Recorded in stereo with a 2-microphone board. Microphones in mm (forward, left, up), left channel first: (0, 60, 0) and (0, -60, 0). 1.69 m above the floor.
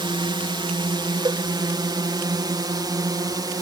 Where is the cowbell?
35° right (ahead or behind).